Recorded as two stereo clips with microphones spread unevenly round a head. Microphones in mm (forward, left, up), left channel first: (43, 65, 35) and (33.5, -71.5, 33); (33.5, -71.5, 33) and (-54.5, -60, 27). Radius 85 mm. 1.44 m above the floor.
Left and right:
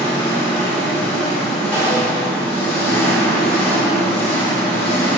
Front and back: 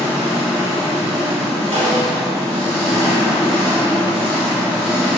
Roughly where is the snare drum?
Behind.